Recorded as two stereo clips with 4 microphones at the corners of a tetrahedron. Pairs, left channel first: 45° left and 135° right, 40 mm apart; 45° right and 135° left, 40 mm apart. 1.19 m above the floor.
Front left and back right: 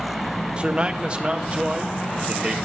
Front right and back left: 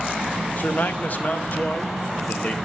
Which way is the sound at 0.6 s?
80° right.